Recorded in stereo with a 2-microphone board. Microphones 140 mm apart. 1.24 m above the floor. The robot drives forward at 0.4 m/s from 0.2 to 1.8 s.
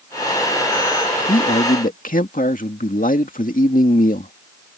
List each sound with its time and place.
1.3 s a man speaking: 80° left; by 4.3 s 75° left (ahead or behind)